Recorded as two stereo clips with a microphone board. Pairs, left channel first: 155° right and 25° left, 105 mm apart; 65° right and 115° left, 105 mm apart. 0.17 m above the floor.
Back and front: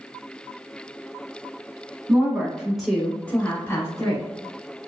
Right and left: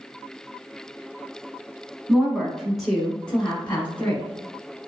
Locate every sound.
2.1 s a woman speaking: 35° left, 1.0 m; by 4.2 s 135° right, 1.2 m